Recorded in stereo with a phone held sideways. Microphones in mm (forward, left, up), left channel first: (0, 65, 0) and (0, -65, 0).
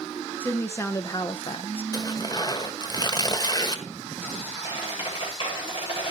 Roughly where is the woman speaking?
Centre.